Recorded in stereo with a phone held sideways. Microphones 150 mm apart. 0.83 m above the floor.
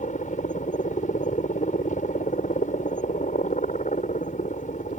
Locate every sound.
0.0 s a helicopter: 55° left (ahead or behind)